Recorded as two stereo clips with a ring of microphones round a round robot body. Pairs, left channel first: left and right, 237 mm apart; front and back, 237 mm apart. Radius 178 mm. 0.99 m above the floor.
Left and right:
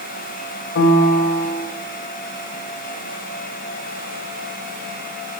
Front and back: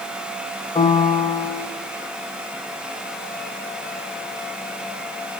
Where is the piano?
70° left, 1.0 m.